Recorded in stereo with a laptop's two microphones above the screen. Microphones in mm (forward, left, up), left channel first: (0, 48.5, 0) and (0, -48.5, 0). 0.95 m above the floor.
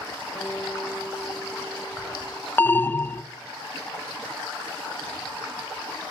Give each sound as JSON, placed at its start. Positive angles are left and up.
{"t": 0.3, "sound": "a guitar", "side_deg": 15, "distance_m": 3.0}
{"t": 2.6, "sound": "an alarm", "side_deg": 20, "distance_m": 0.5}